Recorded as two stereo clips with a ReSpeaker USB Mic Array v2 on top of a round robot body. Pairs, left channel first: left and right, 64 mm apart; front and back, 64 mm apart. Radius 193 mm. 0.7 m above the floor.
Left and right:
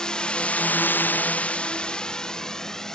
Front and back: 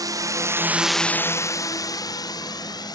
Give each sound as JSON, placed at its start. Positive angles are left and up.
{"t": 0.0, "sound": "a drone", "azimuth_deg": 170}